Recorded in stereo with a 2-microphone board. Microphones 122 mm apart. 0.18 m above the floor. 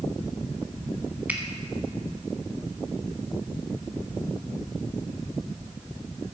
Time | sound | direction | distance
1.3 | a finger snap | 15° right (ahead or behind) | 1.1 m